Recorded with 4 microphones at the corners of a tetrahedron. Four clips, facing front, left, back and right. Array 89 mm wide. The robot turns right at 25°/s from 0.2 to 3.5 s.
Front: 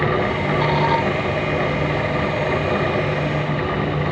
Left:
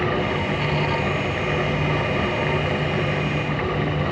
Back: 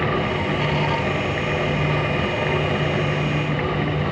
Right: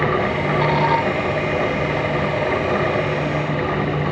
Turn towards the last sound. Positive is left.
No sound to turn to.